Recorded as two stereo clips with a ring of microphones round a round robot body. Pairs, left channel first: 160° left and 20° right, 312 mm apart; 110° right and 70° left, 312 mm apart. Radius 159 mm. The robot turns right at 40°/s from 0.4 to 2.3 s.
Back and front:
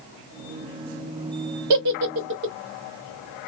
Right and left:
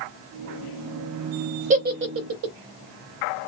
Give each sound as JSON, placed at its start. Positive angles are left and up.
{"t": 1.7, "sound": "a giggle", "azimuth_deg": 0, "distance_m": 0.7}